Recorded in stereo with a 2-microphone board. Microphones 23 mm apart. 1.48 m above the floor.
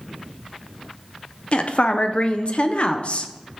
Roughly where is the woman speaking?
Left.